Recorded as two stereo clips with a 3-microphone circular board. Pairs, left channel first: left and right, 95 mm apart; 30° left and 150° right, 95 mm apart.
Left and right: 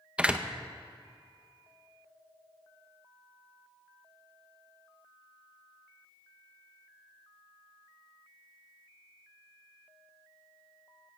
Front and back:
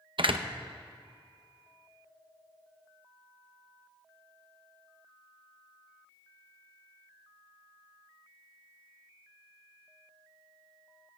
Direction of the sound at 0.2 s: 170° right.